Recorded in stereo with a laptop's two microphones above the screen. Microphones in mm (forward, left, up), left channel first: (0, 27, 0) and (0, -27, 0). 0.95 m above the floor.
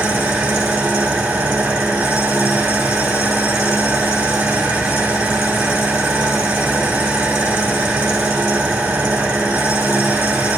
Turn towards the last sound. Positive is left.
turn(degrees=-45)  # may be behind; listen again after turning